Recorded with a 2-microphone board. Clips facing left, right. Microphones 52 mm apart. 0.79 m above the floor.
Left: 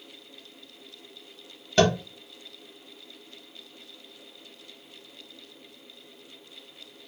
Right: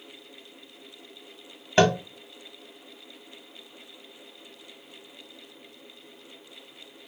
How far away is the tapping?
About 1.1 m.